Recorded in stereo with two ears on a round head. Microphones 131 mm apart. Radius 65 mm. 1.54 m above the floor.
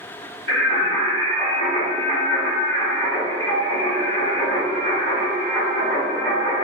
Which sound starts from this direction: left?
Singing, at 0.5 s.